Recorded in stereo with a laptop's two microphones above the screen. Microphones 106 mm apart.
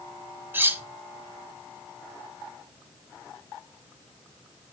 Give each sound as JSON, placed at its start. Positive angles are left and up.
{"t": 0.5, "sound": "cutlery clinking", "side_deg": -20, "distance_m": 0.9}